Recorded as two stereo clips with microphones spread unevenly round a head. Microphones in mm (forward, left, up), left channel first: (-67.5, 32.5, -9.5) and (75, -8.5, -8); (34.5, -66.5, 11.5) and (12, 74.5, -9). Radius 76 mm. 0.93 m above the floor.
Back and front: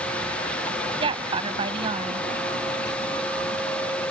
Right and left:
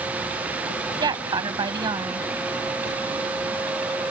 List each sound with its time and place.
1.0 s a woman speaking: 40° left
2.9 s running footsteps: 130° right